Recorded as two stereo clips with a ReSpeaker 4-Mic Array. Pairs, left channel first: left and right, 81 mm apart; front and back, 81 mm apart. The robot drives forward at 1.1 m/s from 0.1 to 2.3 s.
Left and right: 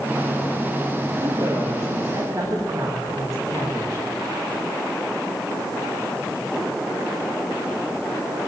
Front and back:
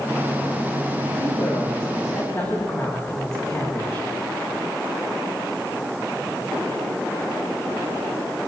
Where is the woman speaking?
35° right, 9 m; by 4.0 s 40° right, 8.5 m.